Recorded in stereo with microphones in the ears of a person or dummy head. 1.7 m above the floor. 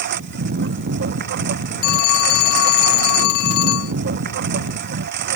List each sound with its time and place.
0.0 s a lawn mower: 55° right (ahead or behind)
1.8 s a phone ringing: 55° left (ahead or behind)